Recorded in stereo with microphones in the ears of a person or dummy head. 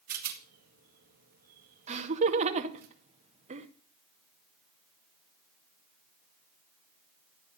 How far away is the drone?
No drone in this recording.